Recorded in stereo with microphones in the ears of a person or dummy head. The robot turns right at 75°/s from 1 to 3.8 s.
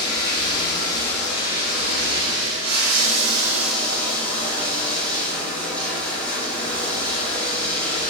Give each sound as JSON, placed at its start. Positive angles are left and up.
{"t": 0.0, "sound": "running water", "azimuth_deg": 155, "distance_m": 1.0}